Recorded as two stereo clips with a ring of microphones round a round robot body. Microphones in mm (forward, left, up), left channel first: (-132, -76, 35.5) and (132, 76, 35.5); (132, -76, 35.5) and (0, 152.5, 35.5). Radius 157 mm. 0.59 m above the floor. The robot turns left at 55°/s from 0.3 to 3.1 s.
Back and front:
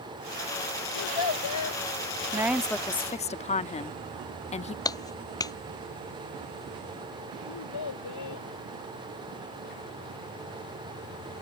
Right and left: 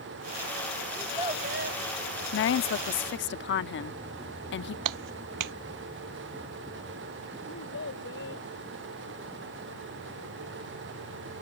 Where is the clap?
130° left.